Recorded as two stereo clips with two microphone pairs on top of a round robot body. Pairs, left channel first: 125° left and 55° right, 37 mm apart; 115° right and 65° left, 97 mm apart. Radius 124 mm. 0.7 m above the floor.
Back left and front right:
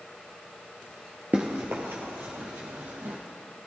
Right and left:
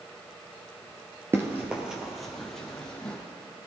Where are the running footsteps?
10° right, 0.9 m; by 3.2 s 35° right, 2.0 m.